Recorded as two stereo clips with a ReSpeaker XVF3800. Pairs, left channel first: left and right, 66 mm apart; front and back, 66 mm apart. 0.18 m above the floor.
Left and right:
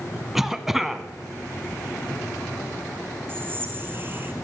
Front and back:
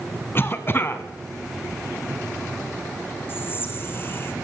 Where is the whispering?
45° right, 2.0 m.